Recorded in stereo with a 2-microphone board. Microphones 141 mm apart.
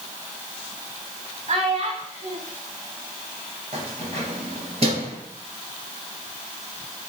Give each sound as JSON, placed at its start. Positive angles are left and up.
{"t": 1.5, "sound": "a child speaking", "side_deg": -40, "distance_m": 0.9}
{"t": 3.7, "sound": "keys jangling", "side_deg": -45, "distance_m": 2.0}